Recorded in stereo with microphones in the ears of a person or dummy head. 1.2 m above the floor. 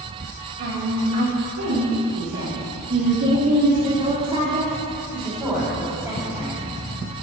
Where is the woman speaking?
80° right, 2.5 m; by 6.6 s centre (ahead or behind), 3.5 m.